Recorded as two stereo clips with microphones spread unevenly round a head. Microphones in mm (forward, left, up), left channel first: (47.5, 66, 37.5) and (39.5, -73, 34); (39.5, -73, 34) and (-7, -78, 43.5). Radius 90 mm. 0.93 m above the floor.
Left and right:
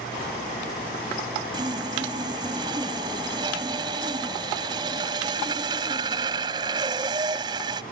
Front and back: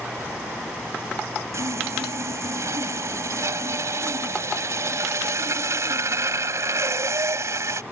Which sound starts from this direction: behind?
Sawing, at 1.5 s.